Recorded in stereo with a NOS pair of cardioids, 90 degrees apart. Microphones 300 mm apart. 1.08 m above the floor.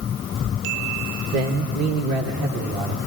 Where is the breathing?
I don't hear breathing.